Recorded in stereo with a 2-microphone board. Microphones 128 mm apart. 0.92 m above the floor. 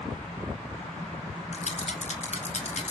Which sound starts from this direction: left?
A rattle, at 1.5 s.